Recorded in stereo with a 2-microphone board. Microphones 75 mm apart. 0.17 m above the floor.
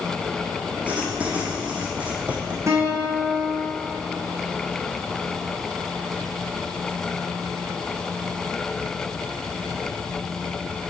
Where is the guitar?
40° right (ahead or behind), 2 m.